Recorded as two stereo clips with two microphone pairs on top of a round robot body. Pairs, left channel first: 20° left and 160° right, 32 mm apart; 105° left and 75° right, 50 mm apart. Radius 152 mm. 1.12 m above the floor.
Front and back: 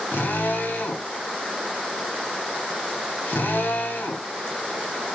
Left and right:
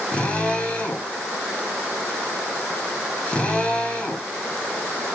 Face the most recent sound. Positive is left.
turn(degrees=35)